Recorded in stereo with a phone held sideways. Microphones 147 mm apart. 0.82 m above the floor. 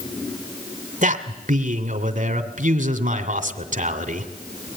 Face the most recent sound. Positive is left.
turn(degrees=-65)  # may be behind; listen again after turning